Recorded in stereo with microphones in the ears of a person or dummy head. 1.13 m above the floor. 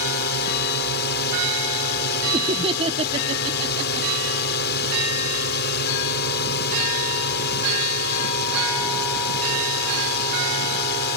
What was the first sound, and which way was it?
A drone, 55° left (ahead or behind).